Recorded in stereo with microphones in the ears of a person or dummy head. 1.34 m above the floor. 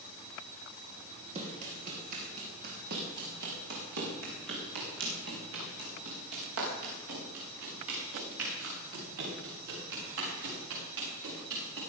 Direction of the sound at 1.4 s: 40° right (ahead or behind).